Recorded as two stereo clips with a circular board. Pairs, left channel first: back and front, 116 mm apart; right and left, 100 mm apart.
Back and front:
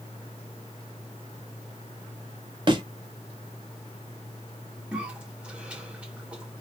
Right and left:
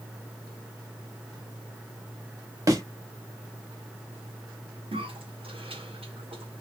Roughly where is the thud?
Ahead left.